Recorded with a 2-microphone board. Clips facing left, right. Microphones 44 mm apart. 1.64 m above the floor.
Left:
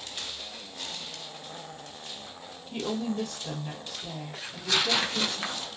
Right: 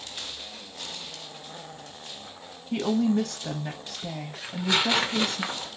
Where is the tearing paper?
20° right (ahead or behind), 0.6 m.